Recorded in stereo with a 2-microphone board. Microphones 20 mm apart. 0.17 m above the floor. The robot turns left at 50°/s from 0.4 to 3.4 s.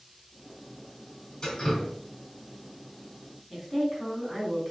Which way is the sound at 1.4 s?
30° left (ahead or behind).